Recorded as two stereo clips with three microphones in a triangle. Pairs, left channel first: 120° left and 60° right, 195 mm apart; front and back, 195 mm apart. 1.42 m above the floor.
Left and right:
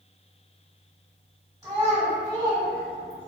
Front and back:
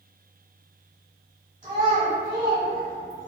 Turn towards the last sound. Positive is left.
turn(degrees=-135)